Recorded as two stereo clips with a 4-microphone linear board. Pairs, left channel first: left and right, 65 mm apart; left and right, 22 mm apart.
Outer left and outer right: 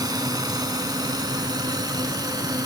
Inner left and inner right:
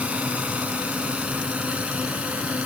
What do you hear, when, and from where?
0.0 s a drone: 80° right